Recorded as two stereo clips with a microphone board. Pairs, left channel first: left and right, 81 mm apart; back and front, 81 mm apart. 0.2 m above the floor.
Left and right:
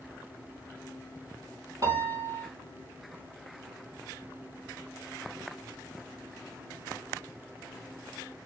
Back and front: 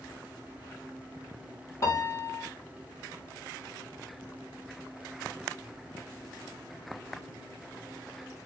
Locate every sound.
1.8 s a piano: 130° right, 1.0 m